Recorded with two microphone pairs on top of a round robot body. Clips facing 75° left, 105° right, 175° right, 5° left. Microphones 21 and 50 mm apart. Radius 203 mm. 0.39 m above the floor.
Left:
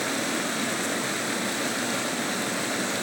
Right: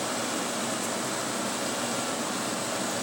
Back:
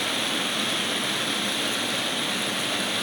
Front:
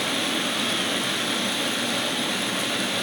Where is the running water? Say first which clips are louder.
Left 3 dB, front 1 dB; 95° left, 2 m.